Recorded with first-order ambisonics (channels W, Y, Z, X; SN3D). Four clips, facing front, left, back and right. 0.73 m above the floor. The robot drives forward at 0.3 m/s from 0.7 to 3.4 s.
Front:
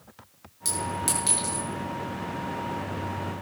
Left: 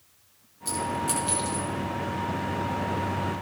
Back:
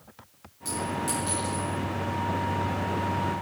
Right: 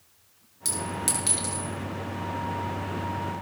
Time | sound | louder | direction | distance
0.7 | a clink | left 2 dB, even | 55° right | 7.5 m